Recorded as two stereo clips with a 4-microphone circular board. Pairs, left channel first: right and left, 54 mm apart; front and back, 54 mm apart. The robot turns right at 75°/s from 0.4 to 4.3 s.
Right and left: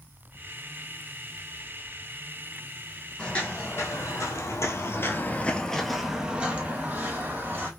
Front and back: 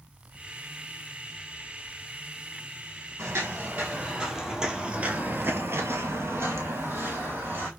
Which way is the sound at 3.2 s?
165° right.